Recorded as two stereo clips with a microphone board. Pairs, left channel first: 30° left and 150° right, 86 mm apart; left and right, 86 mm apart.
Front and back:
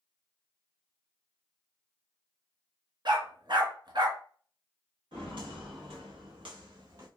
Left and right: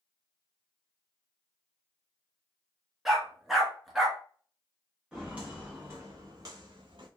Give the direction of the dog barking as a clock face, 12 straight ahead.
6 o'clock.